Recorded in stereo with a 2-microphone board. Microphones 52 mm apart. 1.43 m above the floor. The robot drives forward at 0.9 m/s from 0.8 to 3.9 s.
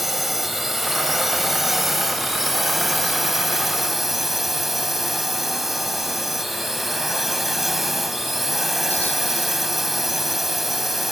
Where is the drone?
Centre (ahead or behind).